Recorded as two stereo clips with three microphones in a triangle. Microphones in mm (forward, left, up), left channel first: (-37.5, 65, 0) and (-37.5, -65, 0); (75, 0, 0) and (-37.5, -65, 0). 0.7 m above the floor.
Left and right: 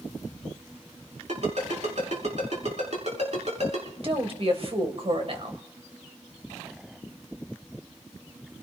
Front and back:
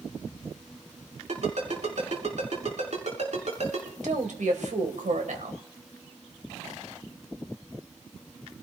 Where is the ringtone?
120° right, 6 m.